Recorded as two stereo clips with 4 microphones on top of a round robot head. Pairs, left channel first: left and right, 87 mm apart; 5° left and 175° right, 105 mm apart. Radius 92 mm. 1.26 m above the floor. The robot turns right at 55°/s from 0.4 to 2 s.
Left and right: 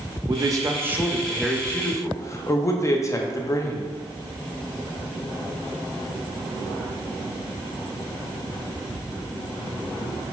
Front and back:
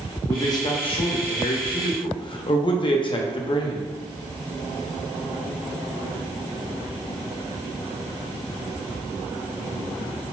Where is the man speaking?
50° right, 0.5 m; by 3.9 s 35° left, 0.5 m.